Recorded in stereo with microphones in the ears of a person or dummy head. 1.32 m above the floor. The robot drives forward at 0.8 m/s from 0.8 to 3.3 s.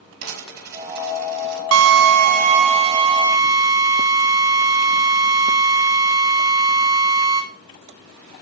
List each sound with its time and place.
0.2 s a dropped coin: 60° right (ahead or behind), 5 m; by 1.6 s 65° right (ahead or behind), 5 m
1.7 s a drill: 80° right, 0.7 m; by 7.4 s 30° right (ahead or behind), 1.5 m